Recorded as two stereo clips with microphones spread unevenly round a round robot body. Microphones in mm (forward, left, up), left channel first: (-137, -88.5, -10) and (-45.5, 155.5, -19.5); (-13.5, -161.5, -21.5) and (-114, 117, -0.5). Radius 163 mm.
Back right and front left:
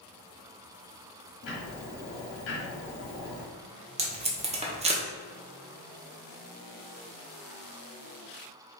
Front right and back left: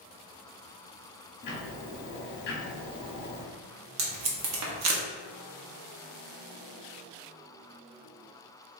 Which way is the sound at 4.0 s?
130° left.